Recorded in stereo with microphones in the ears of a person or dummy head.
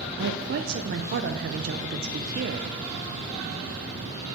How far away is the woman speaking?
About 0.5 m.